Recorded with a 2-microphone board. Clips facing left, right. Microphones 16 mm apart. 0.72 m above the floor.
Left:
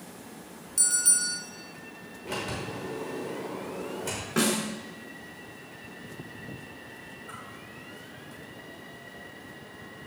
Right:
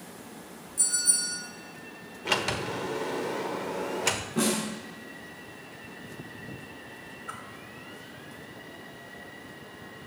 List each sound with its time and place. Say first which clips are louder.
0.8 s a bell: left 1 dB; 60° left (ahead or behind), 2.5 m
2.2 s a sliding door: right 6 dB; 80° right, 0.8 m
4.4 s a snare drum: left 4 dB; 85° left, 3 m
7.3 s a whoosh: right 4 dB; 40° right (ahead or behind), 1.7 m